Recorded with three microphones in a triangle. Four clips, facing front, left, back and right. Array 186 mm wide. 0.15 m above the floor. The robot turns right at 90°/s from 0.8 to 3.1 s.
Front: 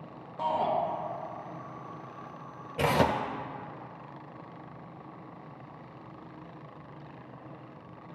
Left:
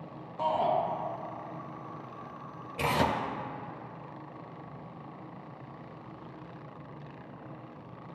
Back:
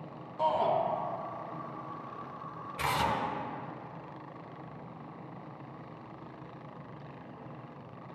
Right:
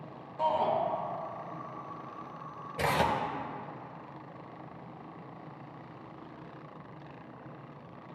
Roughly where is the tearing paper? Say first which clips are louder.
Even, front 5 dB; ahead.